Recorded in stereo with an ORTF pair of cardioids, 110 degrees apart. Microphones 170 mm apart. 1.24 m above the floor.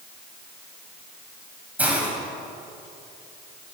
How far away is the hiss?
About 5.5 m.